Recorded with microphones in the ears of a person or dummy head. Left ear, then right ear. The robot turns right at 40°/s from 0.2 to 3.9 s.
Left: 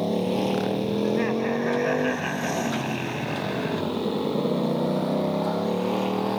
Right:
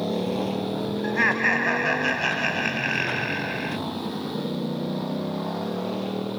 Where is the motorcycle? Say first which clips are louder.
Left 2 dB; 5° left; by 6.4 s 150° left.